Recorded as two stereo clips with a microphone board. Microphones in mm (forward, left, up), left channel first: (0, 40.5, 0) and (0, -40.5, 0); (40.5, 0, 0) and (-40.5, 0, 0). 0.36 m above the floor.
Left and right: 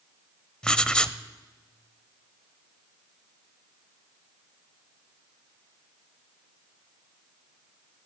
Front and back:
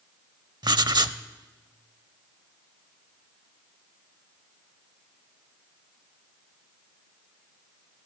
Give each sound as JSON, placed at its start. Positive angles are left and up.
{"t": 0.6, "sound": "writing", "azimuth_deg": 170, "distance_m": 0.6}